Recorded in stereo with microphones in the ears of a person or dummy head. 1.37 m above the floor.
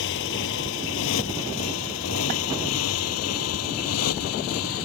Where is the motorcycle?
65° left (ahead or behind); by 4.9 s 85° left.